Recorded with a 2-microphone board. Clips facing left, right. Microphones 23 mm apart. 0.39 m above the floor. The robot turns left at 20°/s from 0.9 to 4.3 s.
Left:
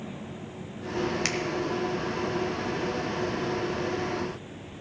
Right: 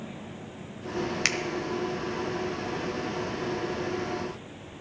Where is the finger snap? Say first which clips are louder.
Right 2 dB; 20° right (ahead or behind), 1.1 m.